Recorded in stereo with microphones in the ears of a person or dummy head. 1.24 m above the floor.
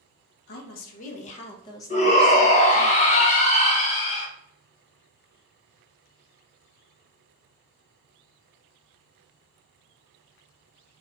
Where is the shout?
40° left (ahead or behind), 1.2 m.